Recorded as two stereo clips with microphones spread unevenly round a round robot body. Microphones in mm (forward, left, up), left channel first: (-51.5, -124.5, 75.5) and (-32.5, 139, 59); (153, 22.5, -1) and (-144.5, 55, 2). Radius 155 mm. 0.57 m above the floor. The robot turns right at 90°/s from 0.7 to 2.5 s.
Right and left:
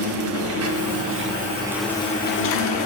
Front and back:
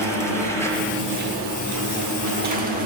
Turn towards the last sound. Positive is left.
turn(degrees=-125)